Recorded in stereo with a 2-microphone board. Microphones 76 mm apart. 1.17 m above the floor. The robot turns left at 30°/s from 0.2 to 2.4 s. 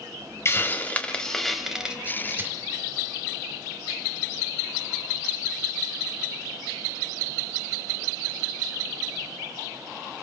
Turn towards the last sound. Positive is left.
turn(degrees=-25)  # may be behind; listen again after turning